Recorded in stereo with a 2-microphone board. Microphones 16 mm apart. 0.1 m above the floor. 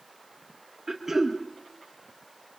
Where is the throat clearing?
20° right (ahead or behind), 2.5 m.